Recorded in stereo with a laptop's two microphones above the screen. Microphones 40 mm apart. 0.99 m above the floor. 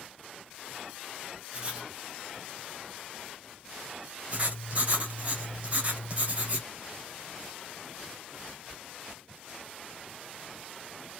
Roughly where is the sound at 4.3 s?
Right.